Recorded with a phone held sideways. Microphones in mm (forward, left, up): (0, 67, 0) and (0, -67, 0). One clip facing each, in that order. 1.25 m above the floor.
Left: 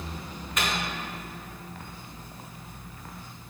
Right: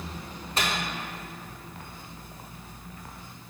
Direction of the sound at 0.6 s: 30° right (ahead or behind).